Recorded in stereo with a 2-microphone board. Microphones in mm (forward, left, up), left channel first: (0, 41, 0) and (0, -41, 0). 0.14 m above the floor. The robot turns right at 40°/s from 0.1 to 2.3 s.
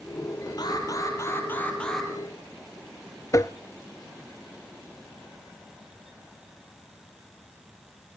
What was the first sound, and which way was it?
An alarm, 120° left.